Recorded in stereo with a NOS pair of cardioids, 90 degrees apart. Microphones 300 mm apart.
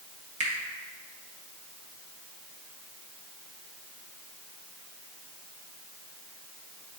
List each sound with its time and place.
0.4 s a finger snap: 25° right, 2 m